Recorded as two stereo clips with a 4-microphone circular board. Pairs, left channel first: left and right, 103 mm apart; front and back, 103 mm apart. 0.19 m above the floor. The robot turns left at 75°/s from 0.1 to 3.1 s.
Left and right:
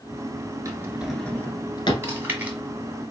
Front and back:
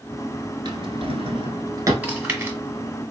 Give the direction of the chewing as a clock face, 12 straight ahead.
4 o'clock.